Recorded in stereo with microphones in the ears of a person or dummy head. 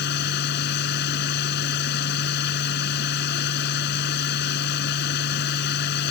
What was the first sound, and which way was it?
A machine running, 65° left (ahead or behind).